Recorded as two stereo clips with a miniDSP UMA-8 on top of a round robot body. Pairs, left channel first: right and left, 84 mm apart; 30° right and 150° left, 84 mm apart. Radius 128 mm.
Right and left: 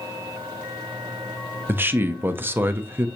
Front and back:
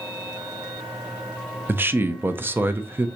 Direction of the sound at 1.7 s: 120° left.